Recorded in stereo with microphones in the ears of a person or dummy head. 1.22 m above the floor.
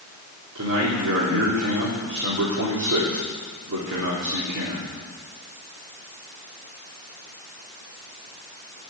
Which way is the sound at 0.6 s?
65° right (ahead or behind).